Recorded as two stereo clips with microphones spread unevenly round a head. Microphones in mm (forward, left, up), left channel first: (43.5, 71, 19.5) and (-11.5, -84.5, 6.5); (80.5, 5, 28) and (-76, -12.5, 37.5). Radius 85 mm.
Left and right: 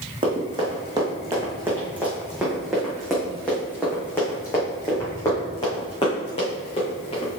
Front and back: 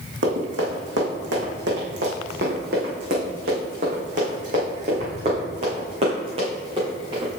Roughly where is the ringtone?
I don't hear a ringtone.